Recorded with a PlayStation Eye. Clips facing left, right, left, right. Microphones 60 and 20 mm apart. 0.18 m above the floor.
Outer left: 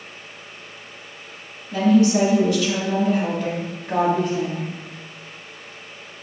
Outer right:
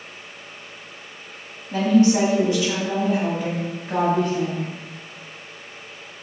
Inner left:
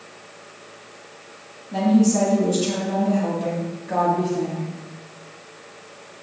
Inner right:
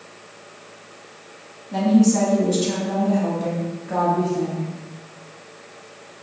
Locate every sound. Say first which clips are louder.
1.7 s a woman speaking: even, inner right 1 dB; 35° right (ahead or behind), 1.7 m; by 4.7 s 20° left (ahead or behind), 1.4 m